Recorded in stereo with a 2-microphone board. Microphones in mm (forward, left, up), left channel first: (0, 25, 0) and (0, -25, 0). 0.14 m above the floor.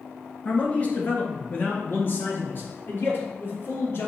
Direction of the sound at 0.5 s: 30° left (ahead or behind).